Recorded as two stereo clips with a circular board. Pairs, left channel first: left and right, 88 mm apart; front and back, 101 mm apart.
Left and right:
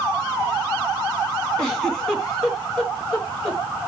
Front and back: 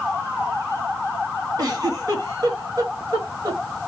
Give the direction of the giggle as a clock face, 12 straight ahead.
6 o'clock.